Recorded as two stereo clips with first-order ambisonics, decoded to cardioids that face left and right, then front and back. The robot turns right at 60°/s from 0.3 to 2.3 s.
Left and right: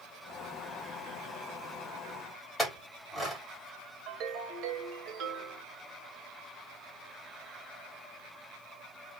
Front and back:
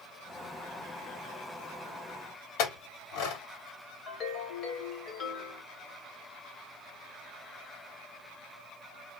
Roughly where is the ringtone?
Ahead right.